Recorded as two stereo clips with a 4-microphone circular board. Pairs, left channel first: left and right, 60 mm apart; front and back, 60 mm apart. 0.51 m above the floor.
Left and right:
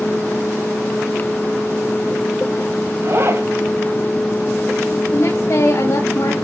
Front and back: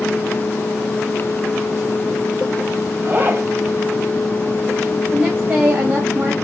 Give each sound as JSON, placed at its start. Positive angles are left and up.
{"t": 3.0, "sound": "a zipper", "azimuth_deg": -130, "distance_m": 3.0}
{"t": 5.1, "sound": "a woman speaking", "azimuth_deg": 120, "distance_m": 2.5}